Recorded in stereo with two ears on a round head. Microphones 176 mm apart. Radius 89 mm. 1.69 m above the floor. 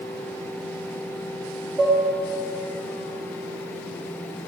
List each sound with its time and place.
1.8 s dishes clattering: centre (ahead or behind), 0.8 m